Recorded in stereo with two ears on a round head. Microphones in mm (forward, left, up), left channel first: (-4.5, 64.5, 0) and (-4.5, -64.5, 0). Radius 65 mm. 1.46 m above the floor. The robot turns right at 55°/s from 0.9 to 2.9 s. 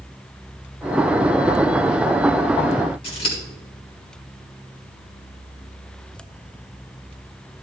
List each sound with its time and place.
3.0 s scissors: 40° left (ahead or behind), 4 m